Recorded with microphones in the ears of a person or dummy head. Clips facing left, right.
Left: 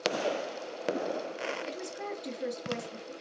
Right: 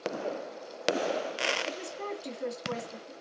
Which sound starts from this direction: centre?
A woman speaking, at 1.6 s.